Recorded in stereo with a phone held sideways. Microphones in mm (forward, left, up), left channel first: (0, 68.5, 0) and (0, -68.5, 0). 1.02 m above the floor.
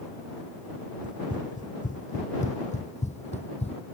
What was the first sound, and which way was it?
Running footsteps, 70° left (ahead or behind).